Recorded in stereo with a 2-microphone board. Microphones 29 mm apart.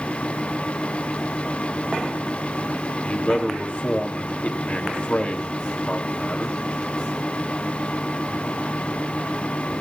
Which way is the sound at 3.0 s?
50° left (ahead or behind).